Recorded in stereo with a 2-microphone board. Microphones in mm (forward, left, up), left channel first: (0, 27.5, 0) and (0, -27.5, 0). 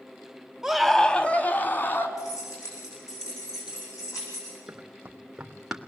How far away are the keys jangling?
About 8.5 m.